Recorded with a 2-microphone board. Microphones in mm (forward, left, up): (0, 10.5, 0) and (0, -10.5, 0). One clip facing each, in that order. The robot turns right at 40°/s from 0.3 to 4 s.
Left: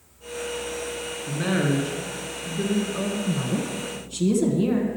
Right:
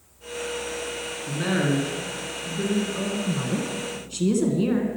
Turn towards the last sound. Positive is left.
turn(degrees=-20)  # may be behind; listen again after turning